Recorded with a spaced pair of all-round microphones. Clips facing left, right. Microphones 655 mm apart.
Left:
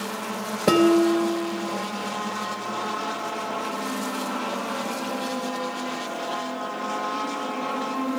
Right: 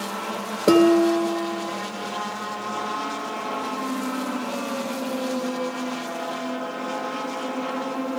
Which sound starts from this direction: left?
Dishes clattering, at 0.7 s.